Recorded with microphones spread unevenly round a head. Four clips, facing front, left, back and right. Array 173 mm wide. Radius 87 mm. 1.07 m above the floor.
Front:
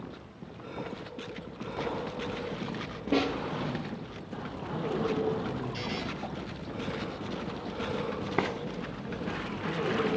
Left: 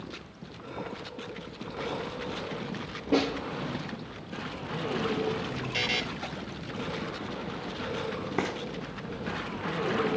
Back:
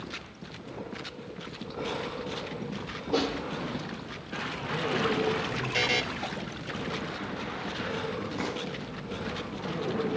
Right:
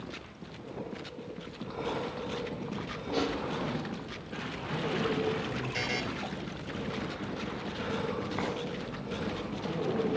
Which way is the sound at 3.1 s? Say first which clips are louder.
Left 5 dB, front 1 dB; 55° left.